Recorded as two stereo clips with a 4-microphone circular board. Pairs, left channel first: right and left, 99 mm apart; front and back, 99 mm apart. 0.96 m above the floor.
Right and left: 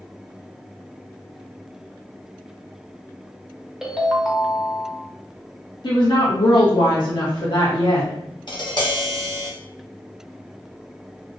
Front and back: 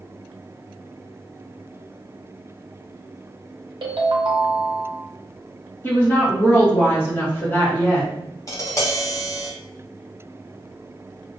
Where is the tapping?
55° right, 0.7 m.